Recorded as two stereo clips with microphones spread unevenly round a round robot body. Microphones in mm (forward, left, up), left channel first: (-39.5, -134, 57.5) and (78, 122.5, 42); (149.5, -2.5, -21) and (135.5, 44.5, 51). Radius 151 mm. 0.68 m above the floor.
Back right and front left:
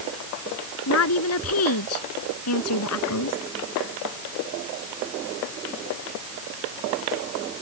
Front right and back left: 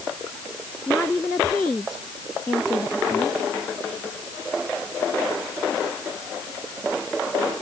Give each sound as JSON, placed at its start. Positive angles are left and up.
{"t": 0.9, "sound": "a woman speaking", "azimuth_deg": -160}